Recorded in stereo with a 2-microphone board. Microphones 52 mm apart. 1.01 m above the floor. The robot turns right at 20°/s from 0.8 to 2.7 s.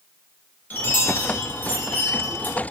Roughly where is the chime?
Left.